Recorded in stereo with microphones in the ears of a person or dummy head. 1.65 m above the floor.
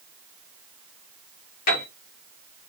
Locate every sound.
1.7 s a piano: 55° left (ahead or behind), 3 m